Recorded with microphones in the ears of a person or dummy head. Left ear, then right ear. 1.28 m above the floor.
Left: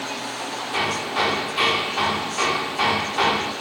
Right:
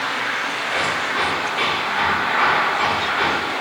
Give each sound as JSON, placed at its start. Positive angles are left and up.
{"t": 0.7, "sound": "hammering", "side_deg": 20, "distance_m": 3.0}